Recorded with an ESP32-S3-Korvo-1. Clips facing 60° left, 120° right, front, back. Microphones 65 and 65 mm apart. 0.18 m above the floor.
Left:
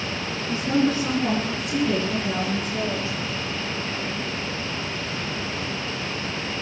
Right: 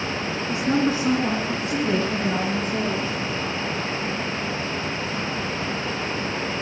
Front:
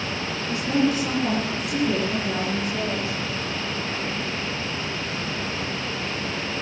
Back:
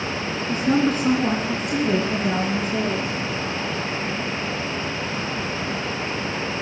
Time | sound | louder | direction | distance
0.5 | a woman speaking | even, back 2 dB | 170° left | 2 m